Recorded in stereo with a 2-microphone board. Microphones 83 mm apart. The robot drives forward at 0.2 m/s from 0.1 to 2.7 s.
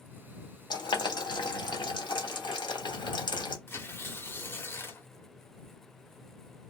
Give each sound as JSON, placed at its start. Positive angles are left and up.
{"t": 0.7, "sound": "boiling", "side_deg": 60, "distance_m": 1.2}
{"t": 3.7, "sound": "tearing paper", "side_deg": 30, "distance_m": 0.9}